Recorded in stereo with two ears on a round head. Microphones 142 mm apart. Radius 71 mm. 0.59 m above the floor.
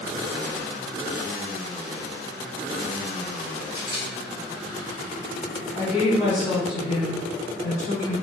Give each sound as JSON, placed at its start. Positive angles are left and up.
{"t": 3.7, "sound": "a camera shutter", "side_deg": 30, "distance_m": 1.6}
{"t": 5.7, "sound": "a woman speaking", "side_deg": 45, "distance_m": 1.5}